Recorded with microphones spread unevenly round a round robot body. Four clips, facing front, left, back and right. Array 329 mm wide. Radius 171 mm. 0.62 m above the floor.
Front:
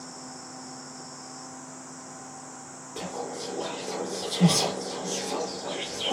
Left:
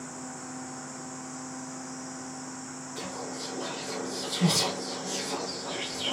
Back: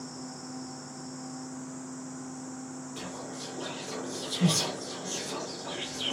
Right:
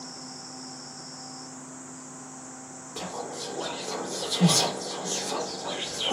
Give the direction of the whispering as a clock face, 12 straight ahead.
2 o'clock.